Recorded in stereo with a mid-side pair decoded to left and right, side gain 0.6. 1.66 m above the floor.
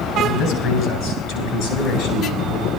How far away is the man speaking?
About 9 m.